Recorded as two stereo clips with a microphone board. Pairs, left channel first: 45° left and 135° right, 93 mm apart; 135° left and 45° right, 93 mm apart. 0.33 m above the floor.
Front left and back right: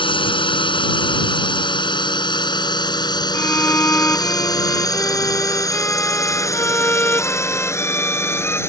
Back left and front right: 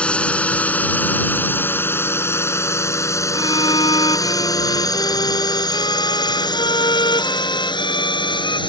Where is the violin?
110° left.